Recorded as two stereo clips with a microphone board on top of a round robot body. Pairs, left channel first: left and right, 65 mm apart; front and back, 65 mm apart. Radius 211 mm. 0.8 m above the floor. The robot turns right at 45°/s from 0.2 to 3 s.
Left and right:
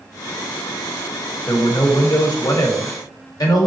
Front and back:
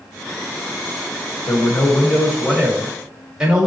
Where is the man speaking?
35° left, 1.1 m; by 3.7 s 105° left, 1.1 m.